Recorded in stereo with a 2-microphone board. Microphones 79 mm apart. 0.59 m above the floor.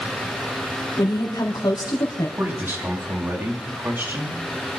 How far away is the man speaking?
About 5 m.